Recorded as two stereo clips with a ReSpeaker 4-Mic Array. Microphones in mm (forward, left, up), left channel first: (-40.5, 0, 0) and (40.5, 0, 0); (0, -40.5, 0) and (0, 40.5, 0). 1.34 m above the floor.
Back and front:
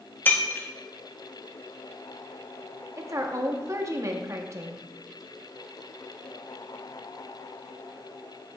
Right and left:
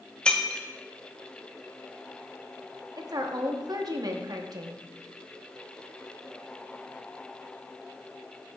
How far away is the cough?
I don't hear a cough.